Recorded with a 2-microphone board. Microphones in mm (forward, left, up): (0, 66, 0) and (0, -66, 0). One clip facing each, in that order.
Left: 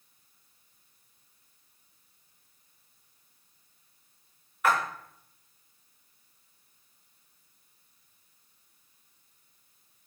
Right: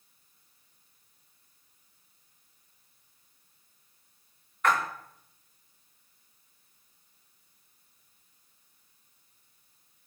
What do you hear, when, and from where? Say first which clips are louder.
4.6 s a splash: even; 5° left (ahead or behind), 1.4 m